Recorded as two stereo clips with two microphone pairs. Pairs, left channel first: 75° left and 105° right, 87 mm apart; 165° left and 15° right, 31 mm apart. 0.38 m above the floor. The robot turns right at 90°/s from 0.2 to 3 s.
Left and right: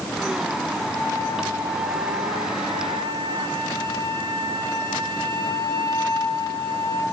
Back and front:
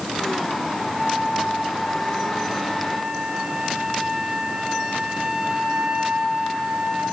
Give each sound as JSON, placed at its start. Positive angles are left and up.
{"t": 0.9, "sound": "a flute", "azimuth_deg": 85, "distance_m": 6.0}